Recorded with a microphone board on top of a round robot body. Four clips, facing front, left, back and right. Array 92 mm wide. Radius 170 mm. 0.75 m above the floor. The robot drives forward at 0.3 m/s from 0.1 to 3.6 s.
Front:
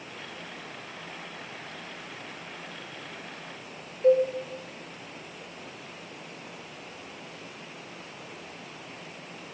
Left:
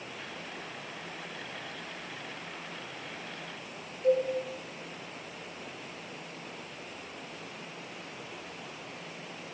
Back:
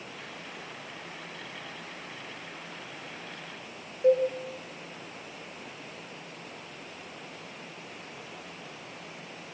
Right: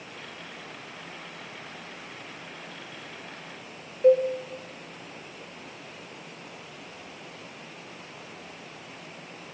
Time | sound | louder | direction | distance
4.0 | a cowbell | right 7 dB, front 2 dB | 110° right | 0.8 m